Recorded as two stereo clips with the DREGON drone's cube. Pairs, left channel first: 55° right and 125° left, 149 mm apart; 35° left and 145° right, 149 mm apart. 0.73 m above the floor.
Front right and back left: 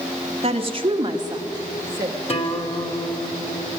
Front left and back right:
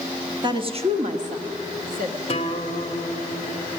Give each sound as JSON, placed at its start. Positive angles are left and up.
{"t": 0.4, "sound": "a woman speaking", "azimuth_deg": 160, "distance_m": 1.3}
{"t": 2.3, "sound": "a guitar", "azimuth_deg": -10, "distance_m": 1.6}